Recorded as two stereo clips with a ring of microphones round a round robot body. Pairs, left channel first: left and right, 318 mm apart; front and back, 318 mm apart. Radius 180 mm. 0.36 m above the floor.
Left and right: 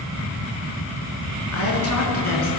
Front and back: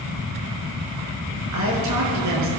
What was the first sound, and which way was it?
A woman speaking, 140° left.